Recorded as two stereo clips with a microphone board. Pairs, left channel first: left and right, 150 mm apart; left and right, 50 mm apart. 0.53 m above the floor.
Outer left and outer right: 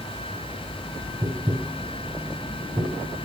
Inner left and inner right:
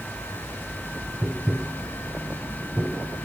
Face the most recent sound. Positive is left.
turn(degrees=-25)  # may be behind; listen again after turning